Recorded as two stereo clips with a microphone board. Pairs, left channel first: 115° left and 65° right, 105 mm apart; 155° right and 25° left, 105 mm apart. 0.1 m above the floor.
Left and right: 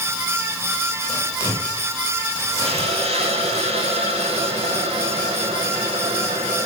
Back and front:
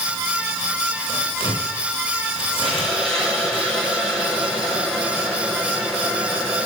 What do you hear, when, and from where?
1.1 s tearing paper: 170° left, 5.5 m
2.6 s a hiss: 70° right, 4 m